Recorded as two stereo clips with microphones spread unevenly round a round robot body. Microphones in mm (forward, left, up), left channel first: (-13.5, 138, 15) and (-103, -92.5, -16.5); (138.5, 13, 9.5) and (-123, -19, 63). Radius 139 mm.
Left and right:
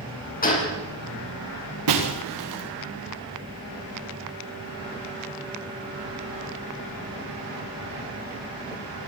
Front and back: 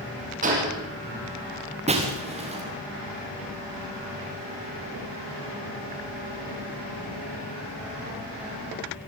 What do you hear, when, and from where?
0.4 s a gunshot: 125° left, 7.5 m
1.9 s breaking glass: 105° right, 4.5 m